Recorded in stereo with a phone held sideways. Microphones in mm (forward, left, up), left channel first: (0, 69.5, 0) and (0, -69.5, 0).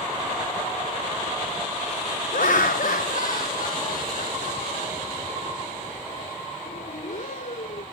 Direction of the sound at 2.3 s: 70° left (ahead or behind).